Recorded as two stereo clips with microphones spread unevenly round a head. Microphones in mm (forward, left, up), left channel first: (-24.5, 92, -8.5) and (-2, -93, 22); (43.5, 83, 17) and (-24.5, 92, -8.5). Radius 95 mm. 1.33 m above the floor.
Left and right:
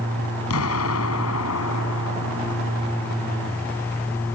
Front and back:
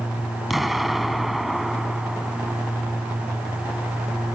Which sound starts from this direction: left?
An explosion, at 0.5 s.